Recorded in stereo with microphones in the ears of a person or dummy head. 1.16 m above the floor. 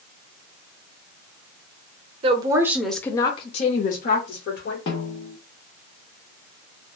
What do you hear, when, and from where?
2.2 s a woman speaking: 35° right (ahead or behind), 0.6 m; by 4.8 s 70° left (ahead or behind), 1.2 m
4.9 s a snare drum: 30° left (ahead or behind), 0.7 m